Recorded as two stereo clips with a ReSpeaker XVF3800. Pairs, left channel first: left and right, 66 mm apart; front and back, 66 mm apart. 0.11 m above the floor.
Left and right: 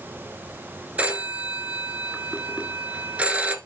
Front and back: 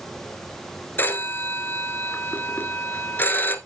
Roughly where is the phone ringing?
Ahead right.